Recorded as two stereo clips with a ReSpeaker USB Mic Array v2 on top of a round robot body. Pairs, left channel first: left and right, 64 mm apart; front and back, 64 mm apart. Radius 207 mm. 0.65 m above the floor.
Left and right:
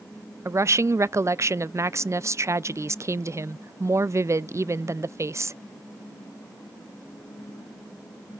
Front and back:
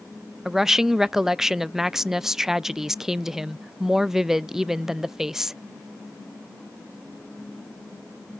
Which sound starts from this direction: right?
A woman speaking, at 0.5 s.